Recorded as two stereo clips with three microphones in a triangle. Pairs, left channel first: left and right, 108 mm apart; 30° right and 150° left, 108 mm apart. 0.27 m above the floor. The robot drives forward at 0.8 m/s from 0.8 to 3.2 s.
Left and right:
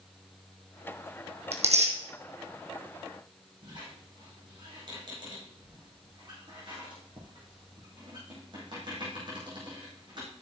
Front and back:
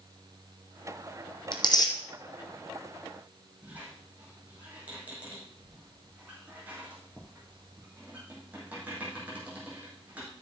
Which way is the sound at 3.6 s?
135° right.